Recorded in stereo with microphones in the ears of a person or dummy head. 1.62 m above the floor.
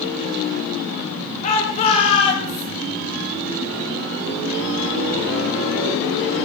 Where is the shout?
40° left (ahead or behind), 4 m; by 2.7 s 30° left (ahead or behind), 4 m.